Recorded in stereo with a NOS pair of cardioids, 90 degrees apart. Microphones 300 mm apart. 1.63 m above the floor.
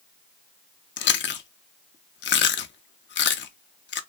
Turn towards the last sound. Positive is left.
turn(degrees=40)